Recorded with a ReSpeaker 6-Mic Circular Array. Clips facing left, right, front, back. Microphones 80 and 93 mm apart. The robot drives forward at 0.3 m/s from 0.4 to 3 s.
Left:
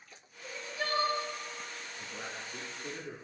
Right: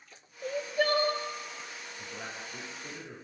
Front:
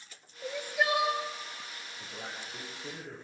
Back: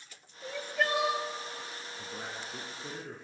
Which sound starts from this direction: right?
Crying, at 0.4 s.